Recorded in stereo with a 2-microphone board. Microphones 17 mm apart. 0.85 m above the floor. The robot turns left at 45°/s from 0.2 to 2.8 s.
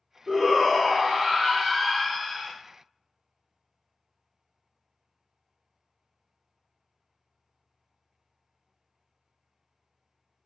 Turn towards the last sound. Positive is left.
turn(degrees=-170)